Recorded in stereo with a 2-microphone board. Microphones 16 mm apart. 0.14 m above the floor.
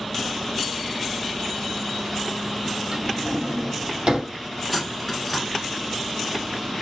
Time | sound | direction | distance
2.9 | a drawer | 45° right (ahead or behind) | 2 m
4.7 | cutlery clinking | centre (ahead or behind) | 0.8 m